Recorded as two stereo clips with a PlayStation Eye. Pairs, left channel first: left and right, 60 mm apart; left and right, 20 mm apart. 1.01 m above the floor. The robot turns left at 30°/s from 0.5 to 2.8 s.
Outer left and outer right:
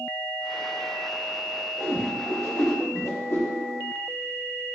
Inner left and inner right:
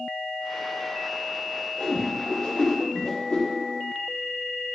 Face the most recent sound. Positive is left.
turn(degrees=45)  # may be behind; listen again after turning